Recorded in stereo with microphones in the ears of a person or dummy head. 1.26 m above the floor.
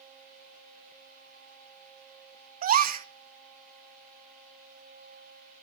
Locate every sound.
2.6 s a gasp: 45° right (ahead or behind), 0.7 m